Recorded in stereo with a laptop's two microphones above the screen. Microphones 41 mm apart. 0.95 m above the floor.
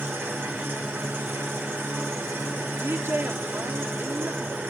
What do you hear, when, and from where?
0.0 s an engine running: 70° right (ahead or behind), 6 m
2.8 s a woman speaking: 65° right (ahead or behind), 1.8 m